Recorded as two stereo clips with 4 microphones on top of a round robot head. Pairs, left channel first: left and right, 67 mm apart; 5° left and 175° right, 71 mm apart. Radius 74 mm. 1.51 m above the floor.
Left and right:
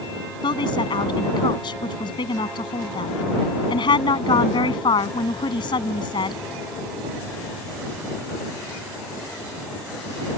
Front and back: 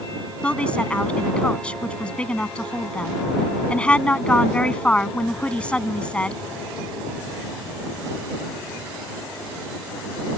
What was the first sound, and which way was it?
A woman speaking, 80° left.